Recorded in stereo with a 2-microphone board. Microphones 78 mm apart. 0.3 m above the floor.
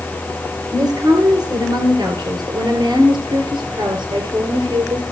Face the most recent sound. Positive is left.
turn(degrees=-80)